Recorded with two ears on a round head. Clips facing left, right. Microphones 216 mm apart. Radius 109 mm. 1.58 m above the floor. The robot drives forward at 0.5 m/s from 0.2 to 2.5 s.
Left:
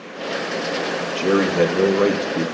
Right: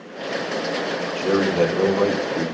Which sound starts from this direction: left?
A man speaking, at 1.1 s.